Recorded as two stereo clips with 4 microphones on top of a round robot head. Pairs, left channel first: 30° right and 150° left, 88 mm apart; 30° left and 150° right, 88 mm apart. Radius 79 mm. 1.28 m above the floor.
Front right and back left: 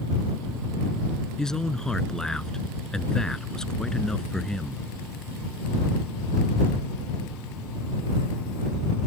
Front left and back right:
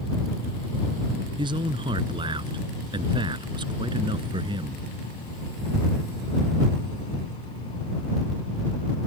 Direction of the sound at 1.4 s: 115° right.